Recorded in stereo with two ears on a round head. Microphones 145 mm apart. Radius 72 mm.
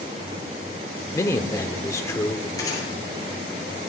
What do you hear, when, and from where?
1.1 s a man speaking: 20° left (ahead or behind), 0.9 m
2.6 s a gunshot: 25° left (ahead or behind), 6.5 m